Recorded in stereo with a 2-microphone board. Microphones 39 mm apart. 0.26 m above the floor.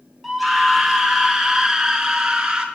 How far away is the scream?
About 3 m.